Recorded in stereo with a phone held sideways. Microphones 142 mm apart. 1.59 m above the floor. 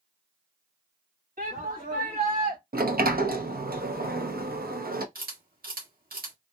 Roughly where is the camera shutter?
Right.